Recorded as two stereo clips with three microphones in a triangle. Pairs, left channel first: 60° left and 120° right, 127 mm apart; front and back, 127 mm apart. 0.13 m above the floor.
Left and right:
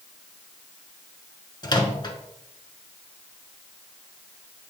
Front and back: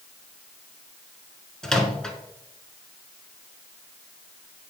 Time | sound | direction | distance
1.6 | a microwave | 85° left | 1.2 m